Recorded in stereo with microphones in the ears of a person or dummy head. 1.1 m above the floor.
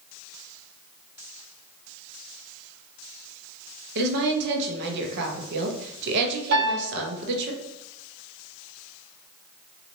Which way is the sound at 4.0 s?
60° right (ahead or behind).